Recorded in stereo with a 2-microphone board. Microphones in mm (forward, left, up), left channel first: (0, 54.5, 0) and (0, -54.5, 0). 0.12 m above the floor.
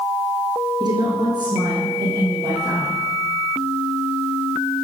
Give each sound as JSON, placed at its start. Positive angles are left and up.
{"t": 0.8, "sound": "a woman speaking", "side_deg": -40, "distance_m": 1.9}